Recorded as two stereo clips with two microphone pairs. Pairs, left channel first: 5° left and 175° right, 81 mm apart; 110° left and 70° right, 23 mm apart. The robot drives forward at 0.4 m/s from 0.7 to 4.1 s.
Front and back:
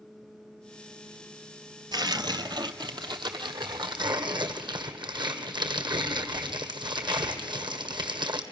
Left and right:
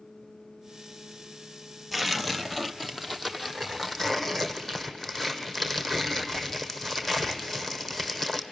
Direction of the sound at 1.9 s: 155° right.